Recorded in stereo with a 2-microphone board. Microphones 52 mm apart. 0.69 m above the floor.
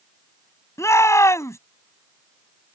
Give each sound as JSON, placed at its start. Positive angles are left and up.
{"t": 0.8, "sound": "a shout", "side_deg": 75}